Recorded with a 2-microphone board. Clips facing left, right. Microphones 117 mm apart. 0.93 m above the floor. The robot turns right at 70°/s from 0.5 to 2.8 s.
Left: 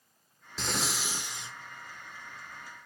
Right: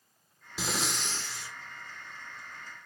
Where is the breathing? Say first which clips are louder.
Even; 10° right (ahead or behind), 0.6 m; by 1.5 s 25° left (ahead or behind), 0.6 m.